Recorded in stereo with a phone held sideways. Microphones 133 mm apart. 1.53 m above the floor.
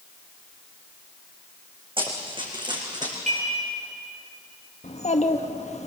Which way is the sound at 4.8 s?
65° left (ahead or behind).